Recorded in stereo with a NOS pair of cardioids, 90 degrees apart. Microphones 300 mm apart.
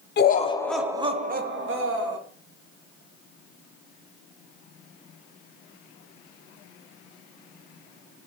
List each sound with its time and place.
0.2 s laughter: 35° left, 0.6 m; by 2.2 s 50° right, 1.0 m